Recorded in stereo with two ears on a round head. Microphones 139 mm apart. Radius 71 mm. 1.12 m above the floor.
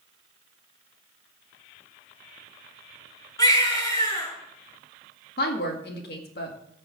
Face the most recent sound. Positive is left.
turn(degrees=65)  # may be behind; listen again after turning